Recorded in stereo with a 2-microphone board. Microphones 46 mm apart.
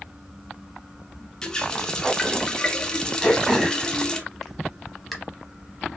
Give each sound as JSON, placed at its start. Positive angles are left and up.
{"t": 1.4, "sound": "a running tap", "side_deg": 15, "distance_m": 0.5}
{"t": 3.2, "sound": "throat clearing", "side_deg": 0, "distance_m": 0.9}